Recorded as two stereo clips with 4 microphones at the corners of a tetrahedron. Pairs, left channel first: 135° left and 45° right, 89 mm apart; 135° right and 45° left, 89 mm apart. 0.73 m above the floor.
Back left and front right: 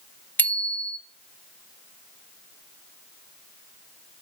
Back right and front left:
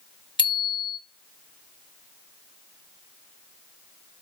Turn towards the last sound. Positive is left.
turn(degrees=-155)